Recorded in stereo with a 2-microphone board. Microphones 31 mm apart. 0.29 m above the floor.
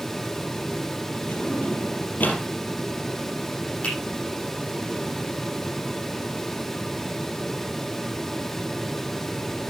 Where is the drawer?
65° left (ahead or behind), 4 m.